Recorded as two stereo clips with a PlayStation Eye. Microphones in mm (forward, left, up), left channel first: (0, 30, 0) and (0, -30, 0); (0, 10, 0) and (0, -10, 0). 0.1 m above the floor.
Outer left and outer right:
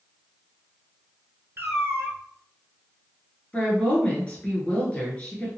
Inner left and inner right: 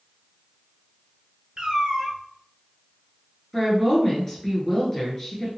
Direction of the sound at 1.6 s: 40° right (ahead or behind).